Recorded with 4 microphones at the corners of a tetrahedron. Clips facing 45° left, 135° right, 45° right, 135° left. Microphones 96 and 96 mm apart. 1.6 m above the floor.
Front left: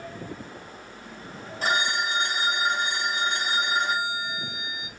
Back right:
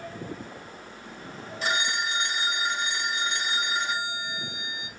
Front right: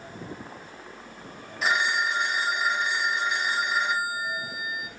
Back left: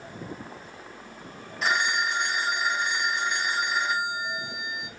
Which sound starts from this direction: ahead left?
A phone ringing, at 1.6 s.